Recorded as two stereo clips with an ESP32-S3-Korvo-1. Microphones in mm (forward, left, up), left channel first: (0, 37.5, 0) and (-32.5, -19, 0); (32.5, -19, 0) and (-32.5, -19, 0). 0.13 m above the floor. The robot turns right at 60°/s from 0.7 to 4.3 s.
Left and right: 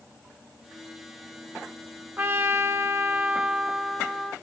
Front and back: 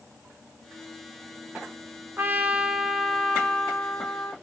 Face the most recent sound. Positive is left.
turn(degrees=-25)